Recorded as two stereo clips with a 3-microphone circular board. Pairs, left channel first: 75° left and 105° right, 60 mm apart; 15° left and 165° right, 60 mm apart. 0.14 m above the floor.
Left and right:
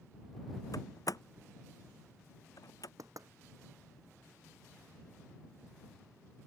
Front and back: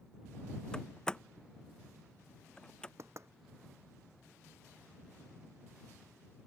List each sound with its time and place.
0.7 s a door slam: 90° left
3.0 s knocking: 125° right